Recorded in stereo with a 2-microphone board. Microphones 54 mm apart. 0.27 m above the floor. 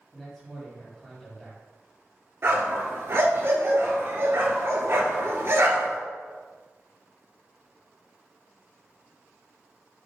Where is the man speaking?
5° left (ahead or behind), 1.9 m.